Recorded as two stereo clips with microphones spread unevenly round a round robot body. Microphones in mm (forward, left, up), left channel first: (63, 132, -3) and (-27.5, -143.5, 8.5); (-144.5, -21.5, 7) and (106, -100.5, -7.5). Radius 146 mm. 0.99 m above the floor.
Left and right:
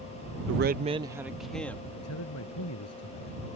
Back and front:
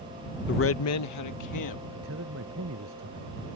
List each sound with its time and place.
0.5 s a man speaking: 150° right; by 1.8 s 155° left
1.9 s a man speaking: 35° left